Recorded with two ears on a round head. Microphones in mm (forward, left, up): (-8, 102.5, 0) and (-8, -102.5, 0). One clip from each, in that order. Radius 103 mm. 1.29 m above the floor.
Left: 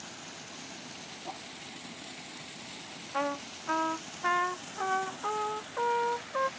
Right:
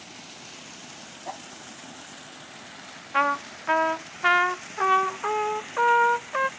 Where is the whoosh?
75° right (ahead or behind).